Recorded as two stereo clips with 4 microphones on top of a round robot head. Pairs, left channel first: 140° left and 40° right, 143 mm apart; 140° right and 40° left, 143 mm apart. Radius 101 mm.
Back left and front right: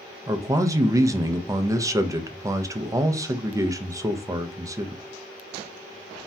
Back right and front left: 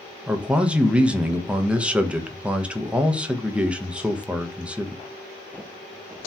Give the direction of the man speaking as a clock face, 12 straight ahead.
1 o'clock.